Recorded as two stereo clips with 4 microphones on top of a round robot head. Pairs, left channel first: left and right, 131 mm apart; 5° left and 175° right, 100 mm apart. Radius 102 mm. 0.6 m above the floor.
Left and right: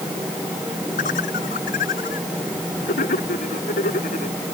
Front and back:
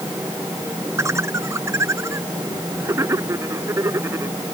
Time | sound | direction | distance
1.0 | laughter | 120° left | ?